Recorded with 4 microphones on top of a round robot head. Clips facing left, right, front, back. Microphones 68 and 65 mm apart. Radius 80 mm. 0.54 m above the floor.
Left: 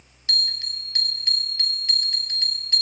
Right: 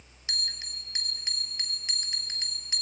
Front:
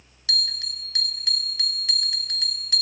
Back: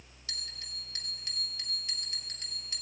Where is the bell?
15° right, 0.5 m.